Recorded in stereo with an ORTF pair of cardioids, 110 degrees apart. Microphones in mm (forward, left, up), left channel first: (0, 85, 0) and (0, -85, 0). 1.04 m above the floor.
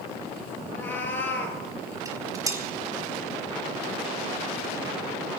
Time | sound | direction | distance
0.7 | a cat meowing | 10° left | 4 m
2.0 | dishes clattering | 20° right | 2.5 m